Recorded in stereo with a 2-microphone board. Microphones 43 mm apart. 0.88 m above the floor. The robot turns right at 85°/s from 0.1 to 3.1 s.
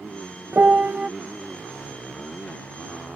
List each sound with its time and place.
0.5 s a piano: 80° right; by 1.1 s 30° right